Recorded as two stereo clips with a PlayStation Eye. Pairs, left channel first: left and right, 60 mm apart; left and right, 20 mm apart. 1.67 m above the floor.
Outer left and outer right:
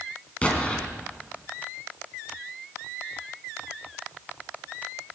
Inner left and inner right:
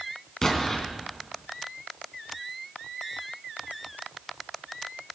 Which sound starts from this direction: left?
An explosion, at 0.4 s.